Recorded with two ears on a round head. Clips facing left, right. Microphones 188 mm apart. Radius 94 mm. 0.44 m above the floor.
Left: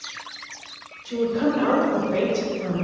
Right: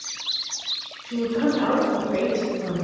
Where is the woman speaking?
45° left (ahead or behind), 1.7 m; by 2.9 s 55° left (ahead or behind), 2.5 m.